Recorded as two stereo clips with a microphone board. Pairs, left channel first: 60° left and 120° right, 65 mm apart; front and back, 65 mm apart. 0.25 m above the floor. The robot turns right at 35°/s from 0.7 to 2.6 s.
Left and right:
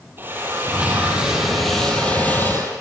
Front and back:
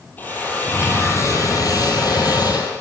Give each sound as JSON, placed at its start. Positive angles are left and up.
{"t": 0.2, "sound": "a drill", "azimuth_deg": -60, "distance_m": 8.5}